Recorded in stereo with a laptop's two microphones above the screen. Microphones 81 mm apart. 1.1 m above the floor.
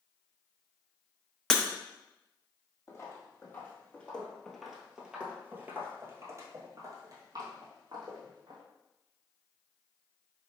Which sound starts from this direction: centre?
Breaking glass, at 1.5 s.